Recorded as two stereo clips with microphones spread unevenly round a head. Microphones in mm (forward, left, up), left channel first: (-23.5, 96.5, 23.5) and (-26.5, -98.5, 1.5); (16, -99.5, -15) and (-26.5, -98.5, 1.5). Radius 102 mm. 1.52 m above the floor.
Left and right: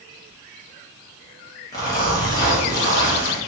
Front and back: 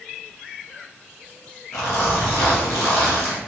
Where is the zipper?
15° left, 0.9 m.